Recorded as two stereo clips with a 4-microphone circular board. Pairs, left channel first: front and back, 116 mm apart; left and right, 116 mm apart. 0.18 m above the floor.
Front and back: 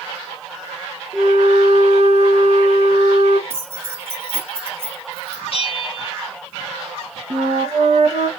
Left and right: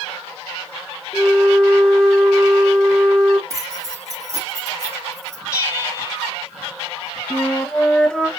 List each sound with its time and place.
1.1 s a flute: 175° left, 0.7 m
3.5 s keys jangling: 130° right, 0.9 m
5.5 s a bell: 35° left, 1.1 m
7.3 s a flute: 175° left, 0.7 m